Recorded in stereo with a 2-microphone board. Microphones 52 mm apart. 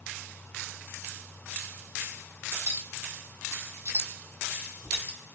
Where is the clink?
70° right (ahead or behind), 1.3 m.